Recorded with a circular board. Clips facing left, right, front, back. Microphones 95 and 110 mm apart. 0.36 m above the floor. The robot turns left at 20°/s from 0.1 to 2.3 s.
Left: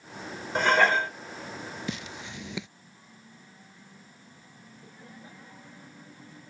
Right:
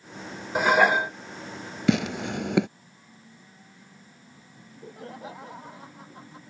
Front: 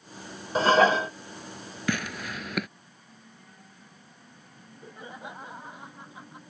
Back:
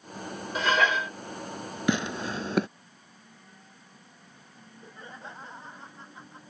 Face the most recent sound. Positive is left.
turn(degrees=-80)